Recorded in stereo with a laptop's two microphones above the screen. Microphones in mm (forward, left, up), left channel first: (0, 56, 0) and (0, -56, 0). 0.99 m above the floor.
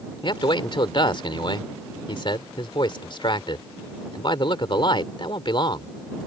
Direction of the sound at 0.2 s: 45° left (ahead or behind).